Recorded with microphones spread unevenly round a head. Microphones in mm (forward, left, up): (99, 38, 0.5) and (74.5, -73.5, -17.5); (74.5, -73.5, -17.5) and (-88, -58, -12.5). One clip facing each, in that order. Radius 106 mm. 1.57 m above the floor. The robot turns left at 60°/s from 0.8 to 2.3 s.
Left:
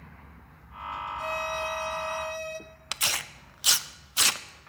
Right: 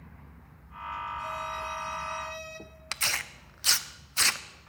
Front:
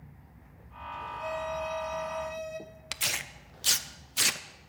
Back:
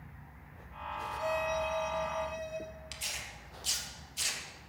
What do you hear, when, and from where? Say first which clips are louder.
1.2 s a violin: left 4 dB, back 1 dB; 115° left, 0.9 m; by 2.6 s 45° left, 0.9 m
2.9 s tearing paper: left 1 dB, front 6 dB; straight ahead, 0.6 m